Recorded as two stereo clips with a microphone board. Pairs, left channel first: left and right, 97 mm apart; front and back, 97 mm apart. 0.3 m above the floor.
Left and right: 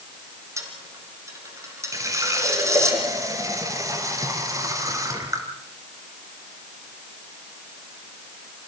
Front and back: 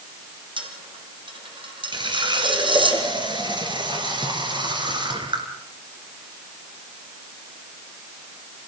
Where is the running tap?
145° right, 3.5 m.